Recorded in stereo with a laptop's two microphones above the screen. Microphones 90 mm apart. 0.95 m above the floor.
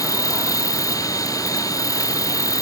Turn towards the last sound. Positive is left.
turn(degrees=40)  # may be behind; listen again after turning